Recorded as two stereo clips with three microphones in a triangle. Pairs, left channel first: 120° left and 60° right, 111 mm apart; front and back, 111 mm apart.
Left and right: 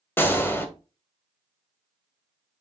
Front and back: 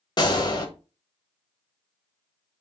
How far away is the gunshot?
About 0.6 m.